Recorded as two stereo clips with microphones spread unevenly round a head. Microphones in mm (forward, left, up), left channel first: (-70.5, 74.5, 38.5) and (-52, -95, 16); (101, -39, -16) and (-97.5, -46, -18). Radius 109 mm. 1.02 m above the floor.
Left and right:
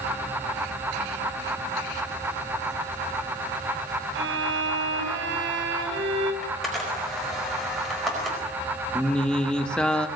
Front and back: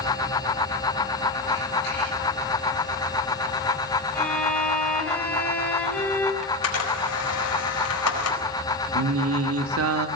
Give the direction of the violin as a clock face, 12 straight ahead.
3 o'clock.